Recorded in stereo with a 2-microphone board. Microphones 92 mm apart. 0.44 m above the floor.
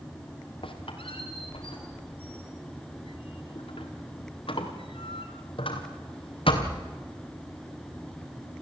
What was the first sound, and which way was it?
A squeak, 70° left (ahead or behind).